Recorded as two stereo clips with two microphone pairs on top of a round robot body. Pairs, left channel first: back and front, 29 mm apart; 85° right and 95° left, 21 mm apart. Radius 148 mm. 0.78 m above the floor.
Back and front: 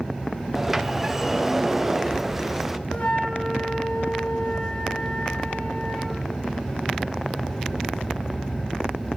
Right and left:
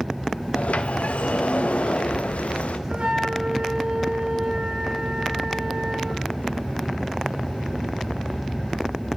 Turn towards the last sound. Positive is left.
turn(degrees=135)